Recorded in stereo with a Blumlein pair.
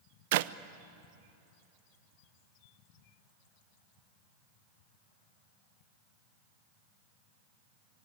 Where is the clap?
50° right, 0.6 m.